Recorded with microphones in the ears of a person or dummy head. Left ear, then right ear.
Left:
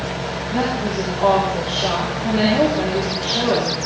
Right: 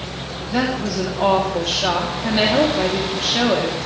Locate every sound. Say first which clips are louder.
0.5 s a woman speaking: right 1 dB; 85° right, 3.5 m